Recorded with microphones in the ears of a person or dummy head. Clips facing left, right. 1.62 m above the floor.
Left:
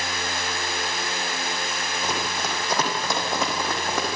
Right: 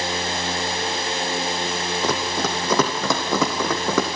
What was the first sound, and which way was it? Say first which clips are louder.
Running footsteps: right 5 dB; 60° right (ahead or behind).